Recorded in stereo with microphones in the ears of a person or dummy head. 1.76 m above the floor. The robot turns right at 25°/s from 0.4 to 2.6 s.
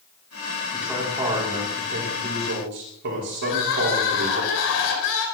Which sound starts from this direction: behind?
A man speaking, at 0.7 s.